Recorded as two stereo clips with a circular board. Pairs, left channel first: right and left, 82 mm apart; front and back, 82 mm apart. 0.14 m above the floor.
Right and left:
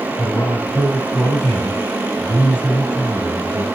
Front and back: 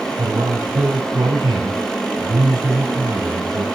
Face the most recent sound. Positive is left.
turn(degrees=-160)